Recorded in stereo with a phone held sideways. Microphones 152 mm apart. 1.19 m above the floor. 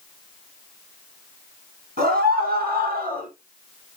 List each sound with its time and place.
2.0 s a scream: 70° right (ahead or behind), 8 m; by 3.3 s 65° right (ahead or behind), 7.5 m